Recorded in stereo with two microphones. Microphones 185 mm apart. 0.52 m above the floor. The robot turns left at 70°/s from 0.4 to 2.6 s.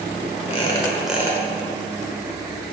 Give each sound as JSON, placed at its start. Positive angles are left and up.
{"t": 0.5, "sound": "a squeak", "azimuth_deg": 40, "distance_m": 1.1}